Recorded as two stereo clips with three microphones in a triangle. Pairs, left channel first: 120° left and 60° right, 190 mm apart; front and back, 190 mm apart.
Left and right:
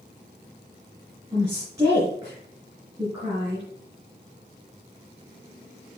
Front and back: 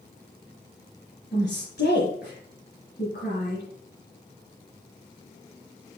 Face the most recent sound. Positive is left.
turn(degrees=10)